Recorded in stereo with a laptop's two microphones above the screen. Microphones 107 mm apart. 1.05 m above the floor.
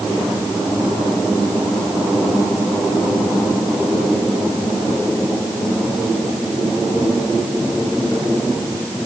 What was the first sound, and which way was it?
Only background noise.